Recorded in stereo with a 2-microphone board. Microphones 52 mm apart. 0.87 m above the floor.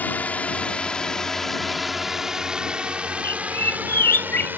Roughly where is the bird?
Left.